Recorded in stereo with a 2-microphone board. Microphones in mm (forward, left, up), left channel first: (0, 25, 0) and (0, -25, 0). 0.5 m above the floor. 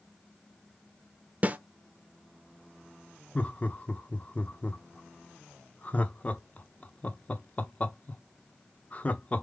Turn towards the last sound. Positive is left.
turn(degrees=30)  # may be behind; listen again after turning